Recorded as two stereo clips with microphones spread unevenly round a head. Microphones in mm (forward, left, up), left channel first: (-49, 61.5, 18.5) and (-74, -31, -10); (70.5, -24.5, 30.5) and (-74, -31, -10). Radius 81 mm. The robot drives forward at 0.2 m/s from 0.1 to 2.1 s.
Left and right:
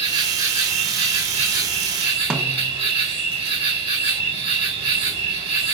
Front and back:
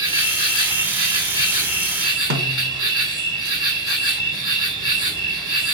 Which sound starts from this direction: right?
An insect, at 0.0 s.